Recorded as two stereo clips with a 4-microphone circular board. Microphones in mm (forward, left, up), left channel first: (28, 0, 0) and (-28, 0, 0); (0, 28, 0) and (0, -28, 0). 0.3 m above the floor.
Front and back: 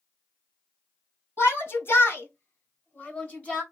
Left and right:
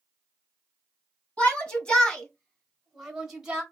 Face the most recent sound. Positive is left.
turn(degrees=-35)